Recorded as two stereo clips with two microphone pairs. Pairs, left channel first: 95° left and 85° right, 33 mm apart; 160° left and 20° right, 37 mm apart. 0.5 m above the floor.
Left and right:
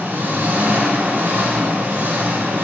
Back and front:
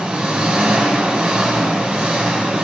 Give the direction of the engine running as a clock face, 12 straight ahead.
2 o'clock.